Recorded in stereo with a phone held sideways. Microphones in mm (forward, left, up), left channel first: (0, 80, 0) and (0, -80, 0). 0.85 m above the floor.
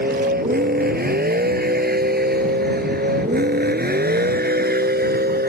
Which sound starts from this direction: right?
A vehicle, at 0.0 s.